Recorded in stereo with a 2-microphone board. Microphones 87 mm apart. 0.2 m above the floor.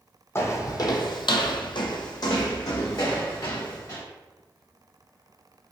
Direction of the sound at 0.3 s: 30° left (ahead or behind).